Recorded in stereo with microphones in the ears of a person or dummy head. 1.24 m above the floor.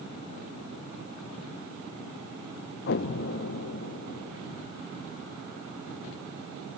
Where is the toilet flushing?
I don't hear a toilet flushing.